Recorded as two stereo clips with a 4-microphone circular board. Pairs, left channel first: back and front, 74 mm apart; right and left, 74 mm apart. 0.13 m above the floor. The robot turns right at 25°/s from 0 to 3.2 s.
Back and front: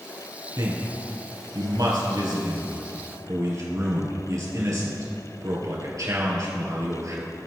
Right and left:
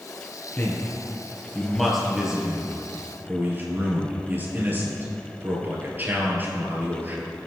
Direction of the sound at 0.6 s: 35° right.